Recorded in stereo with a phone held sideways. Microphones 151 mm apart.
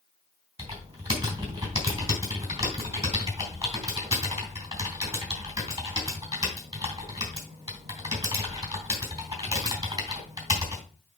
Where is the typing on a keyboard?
20° right (ahead or behind), 3 m.